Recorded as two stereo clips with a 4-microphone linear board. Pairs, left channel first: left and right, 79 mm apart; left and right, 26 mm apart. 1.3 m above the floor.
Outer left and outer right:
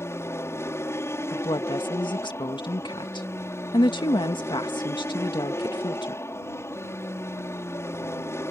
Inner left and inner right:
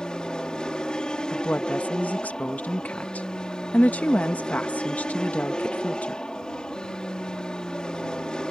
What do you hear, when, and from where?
0.0 s an aircraft: 35° left (ahead or behind)
1.3 s a woman speaking: 80° left